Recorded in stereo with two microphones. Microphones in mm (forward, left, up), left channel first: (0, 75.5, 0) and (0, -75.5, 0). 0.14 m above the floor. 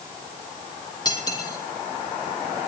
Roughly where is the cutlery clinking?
Left.